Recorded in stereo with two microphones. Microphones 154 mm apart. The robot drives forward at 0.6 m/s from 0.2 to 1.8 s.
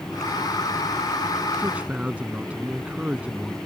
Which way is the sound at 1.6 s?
10° right (ahead or behind).